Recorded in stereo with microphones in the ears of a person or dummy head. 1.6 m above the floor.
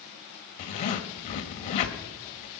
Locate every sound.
0.6 s a zipper: 40° left (ahead or behind), 1.8 m